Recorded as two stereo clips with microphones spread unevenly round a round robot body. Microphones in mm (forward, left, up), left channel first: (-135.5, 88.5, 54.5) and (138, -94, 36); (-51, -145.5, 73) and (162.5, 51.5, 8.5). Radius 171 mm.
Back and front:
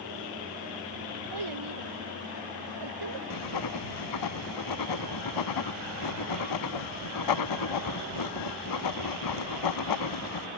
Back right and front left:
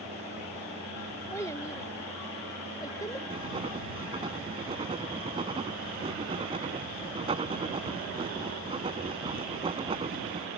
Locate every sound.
1.3 s a child speaking: 55° right; by 3.2 s 60° right
3.3 s writing: 120° left